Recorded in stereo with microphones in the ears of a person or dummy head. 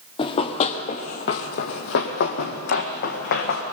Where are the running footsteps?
30° left (ahead or behind), 1.7 m; by 3.6 s 60° left (ahead or behind), 3.5 m.